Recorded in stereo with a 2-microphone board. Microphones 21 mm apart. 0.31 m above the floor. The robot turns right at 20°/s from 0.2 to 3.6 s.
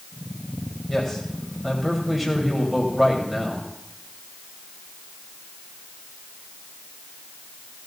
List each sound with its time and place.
0.9 s a man speaking: 155° left, 1.7 m; by 3.7 s 155° right, 1.7 m